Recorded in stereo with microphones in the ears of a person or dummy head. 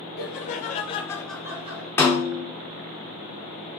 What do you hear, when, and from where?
0.2 s laughter: 50° left (ahead or behind), 1.0 m; by 1.9 s 30° right (ahead or behind), 0.7 m
2.0 s a snare drum: 10° left (ahead or behind), 0.8 m